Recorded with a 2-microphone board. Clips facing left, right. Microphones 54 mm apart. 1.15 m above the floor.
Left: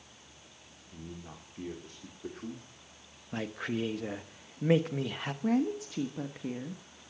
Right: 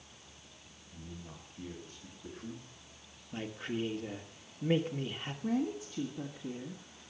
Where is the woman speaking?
85° left, 1.2 m.